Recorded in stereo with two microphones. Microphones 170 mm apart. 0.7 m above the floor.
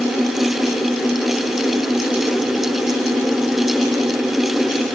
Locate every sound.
Only background noise.